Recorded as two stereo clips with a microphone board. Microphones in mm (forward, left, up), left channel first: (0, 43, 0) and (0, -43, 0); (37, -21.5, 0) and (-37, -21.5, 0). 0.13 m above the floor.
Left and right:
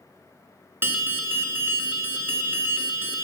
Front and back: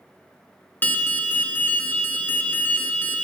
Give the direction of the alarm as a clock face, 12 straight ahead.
1 o'clock.